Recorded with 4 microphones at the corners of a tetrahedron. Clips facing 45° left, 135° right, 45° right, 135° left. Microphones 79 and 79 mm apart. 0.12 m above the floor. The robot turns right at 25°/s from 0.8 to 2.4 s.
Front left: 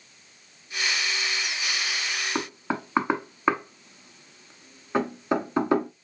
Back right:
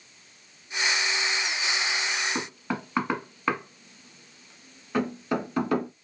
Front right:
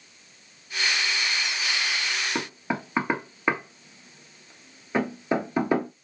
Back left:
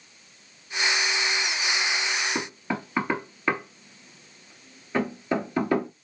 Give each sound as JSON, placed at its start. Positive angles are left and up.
{"t": 2.4, "sound": "knocking", "azimuth_deg": 10, "distance_m": 1.1}